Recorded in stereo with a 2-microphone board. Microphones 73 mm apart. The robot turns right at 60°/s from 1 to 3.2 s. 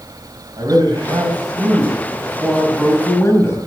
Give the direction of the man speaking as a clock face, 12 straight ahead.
3 o'clock.